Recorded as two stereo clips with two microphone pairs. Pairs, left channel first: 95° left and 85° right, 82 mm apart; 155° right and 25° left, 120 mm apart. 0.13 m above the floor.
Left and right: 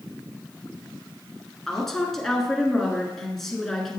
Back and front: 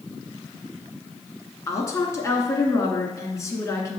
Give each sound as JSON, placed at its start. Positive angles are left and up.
{"t": 1.7, "sound": "a woman speaking", "azimuth_deg": 175, "distance_m": 1.4}